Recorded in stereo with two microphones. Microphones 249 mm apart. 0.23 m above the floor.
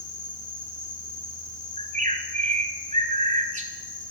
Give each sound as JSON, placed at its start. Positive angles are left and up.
{"t": 0.0, "sound": "an insect", "side_deg": 55, "distance_m": 3.5}
{"t": 1.8, "sound": "a bird", "side_deg": -30, "distance_m": 1.5}